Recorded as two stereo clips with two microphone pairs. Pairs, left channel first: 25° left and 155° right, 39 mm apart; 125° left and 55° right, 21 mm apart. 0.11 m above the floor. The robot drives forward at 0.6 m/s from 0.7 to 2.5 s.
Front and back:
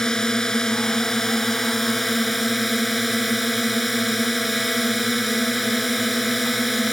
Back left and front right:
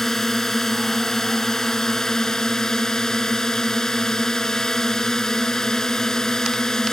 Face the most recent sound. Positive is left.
turn(degrees=115)